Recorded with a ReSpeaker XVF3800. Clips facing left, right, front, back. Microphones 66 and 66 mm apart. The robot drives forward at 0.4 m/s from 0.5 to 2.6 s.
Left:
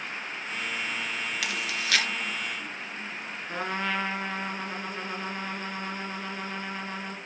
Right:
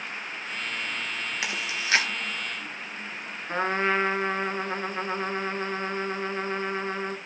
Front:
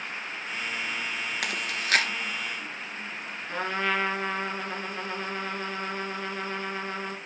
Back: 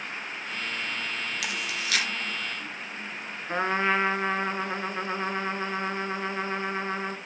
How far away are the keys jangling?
No keys jangling in this recording.